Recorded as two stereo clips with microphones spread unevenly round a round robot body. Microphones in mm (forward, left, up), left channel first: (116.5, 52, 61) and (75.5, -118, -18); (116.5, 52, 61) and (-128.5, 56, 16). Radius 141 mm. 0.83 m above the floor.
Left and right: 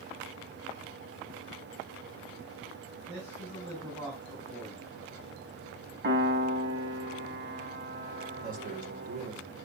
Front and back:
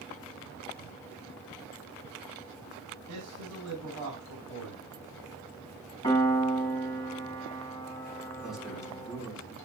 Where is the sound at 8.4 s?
95° right, 3 m.